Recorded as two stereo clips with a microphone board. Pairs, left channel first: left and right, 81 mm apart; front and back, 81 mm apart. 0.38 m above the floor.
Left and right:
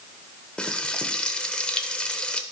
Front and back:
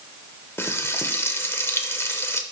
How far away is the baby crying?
I don't hear a baby crying.